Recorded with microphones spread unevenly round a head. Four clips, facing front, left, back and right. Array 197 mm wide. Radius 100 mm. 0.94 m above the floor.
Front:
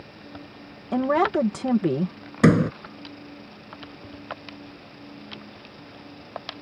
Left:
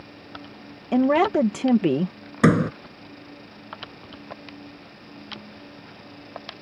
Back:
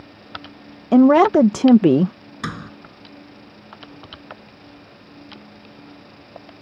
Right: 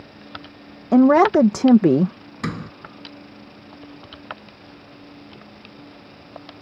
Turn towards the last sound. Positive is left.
turn(degrees=40)